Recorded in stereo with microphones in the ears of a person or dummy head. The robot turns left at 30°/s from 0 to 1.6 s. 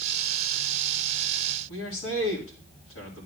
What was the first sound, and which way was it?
A man speaking, 85° left.